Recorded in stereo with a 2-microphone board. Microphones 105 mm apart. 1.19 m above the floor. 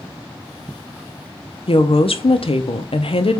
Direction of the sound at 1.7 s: 65° left (ahead or behind).